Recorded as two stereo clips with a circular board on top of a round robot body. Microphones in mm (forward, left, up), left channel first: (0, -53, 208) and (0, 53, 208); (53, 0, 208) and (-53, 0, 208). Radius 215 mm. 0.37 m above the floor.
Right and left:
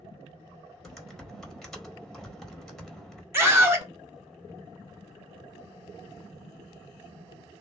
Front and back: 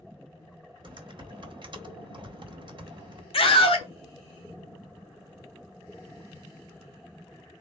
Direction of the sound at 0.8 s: 175° right.